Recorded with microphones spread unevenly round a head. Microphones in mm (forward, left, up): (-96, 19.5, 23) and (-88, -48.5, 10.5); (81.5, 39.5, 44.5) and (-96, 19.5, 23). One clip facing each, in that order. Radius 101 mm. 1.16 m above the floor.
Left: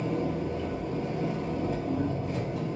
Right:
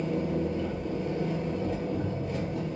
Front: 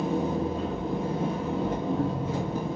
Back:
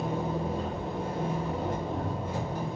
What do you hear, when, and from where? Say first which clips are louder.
0.0 s an engine running: right 1 dB, front 4 dB; 25° left, 1.2 m